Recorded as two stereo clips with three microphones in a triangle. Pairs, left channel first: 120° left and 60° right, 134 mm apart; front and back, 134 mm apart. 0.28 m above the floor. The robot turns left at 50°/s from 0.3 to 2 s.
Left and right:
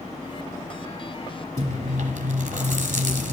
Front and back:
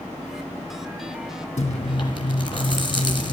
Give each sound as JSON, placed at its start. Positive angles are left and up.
{"t": 1.6, "sound": "chewing", "azimuth_deg": -30, "distance_m": 1.3}